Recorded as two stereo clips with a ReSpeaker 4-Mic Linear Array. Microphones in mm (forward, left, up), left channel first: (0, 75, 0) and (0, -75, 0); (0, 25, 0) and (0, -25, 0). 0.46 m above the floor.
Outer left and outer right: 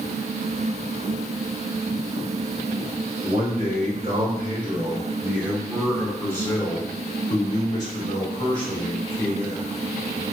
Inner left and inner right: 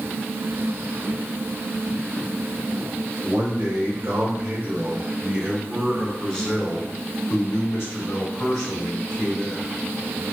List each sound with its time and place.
3.2 s a man speaking: 50° right (ahead or behind), 2.0 m; by 9.7 s 70° left (ahead or behind), 2.5 m